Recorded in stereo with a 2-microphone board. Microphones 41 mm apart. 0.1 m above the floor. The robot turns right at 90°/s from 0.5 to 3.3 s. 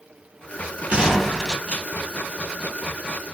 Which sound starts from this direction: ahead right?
A gunshot, at 0.9 s.